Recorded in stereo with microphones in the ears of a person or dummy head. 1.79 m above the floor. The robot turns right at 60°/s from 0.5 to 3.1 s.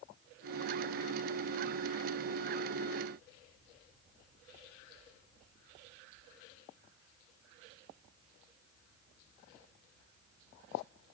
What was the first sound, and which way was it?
Only background noise.